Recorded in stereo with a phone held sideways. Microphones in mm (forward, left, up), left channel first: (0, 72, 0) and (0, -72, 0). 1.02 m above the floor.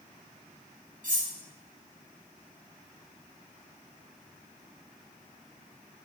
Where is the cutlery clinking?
65° right (ahead or behind), 0.7 m.